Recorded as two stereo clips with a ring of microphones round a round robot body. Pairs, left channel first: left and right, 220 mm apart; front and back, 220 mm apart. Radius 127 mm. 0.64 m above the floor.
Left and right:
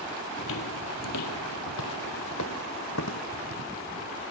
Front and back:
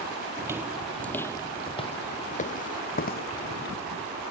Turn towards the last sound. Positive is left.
turn(degrees=45)